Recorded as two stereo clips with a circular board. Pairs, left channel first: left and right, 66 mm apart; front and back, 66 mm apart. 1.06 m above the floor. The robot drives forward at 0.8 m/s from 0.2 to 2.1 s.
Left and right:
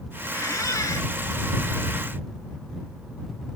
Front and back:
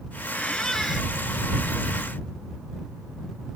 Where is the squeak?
70° left; by 1.1 s 95° left.